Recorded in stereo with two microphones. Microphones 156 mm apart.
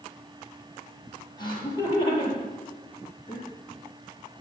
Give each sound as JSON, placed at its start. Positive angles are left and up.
{"t": 1.4, "sound": "laughter", "side_deg": 30, "distance_m": 6.0}